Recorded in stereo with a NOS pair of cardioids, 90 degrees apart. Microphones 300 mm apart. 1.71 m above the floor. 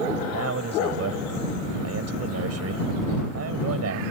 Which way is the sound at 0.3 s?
55° right.